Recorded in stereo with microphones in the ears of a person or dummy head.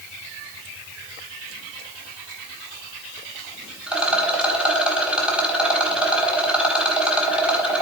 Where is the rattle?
5° right (ahead or behind), 1.7 m.